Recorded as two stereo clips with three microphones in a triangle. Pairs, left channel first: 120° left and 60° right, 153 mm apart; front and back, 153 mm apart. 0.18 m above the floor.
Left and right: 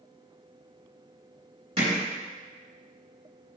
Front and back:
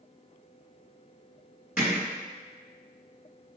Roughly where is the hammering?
Right.